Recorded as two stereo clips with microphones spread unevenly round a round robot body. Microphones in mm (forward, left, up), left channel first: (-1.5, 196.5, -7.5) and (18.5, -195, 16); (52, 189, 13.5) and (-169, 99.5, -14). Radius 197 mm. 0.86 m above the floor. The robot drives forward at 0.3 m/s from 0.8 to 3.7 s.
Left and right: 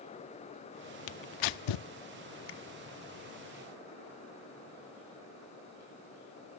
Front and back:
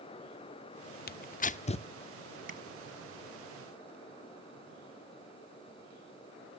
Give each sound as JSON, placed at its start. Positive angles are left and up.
{"t": 1.1, "sound": "tearing paper", "azimuth_deg": 55, "distance_m": 0.7}
{"t": 2.5, "sound": "tapping", "azimuth_deg": 150, "distance_m": 1.6}